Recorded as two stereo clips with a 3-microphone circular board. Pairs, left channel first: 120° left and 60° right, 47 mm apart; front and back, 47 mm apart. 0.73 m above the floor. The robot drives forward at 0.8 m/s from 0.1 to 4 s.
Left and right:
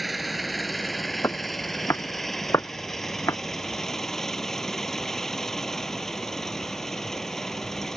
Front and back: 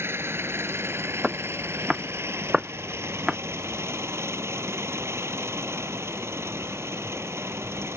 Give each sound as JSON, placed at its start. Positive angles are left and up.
{"t": 0.0, "sound": "an engine running", "azimuth_deg": -150}
{"t": 1.2, "sound": "footsteps", "azimuth_deg": 95}